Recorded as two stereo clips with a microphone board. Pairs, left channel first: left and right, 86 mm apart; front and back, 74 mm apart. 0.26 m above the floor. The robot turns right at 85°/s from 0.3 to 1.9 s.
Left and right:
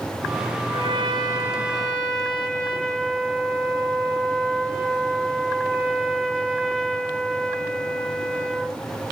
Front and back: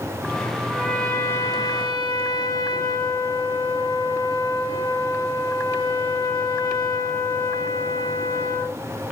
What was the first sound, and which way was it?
A trumpet, 90° right.